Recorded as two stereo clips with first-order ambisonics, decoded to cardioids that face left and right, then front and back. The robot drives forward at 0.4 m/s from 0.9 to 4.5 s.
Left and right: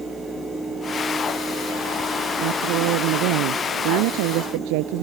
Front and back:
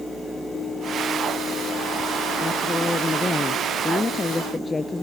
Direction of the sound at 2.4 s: 75° right.